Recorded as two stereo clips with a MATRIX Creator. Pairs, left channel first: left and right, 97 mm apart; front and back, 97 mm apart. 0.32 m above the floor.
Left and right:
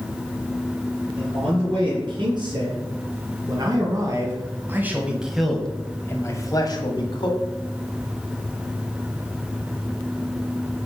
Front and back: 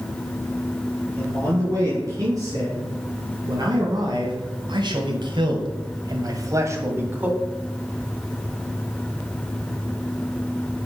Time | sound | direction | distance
1.2 | a man speaking | 125° right | 4.5 m